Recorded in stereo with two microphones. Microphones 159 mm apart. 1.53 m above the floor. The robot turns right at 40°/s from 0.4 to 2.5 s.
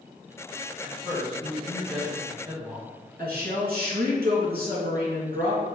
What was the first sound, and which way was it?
A man speaking, 135° left.